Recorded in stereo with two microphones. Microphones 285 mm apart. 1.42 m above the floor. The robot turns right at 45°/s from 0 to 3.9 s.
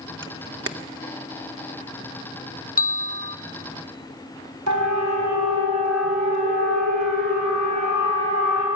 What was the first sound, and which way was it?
A camera shutter, 45° right (ahead or behind).